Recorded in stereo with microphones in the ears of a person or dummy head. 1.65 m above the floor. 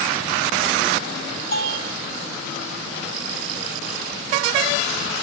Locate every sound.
1.5 s a bell: 65° left (ahead or behind), 5 m